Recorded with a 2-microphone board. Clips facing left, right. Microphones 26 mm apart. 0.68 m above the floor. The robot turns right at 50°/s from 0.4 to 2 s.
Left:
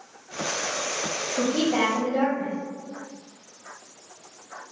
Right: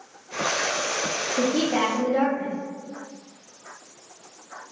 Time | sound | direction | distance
1.4 | a woman speaking | 165° right | 0.6 m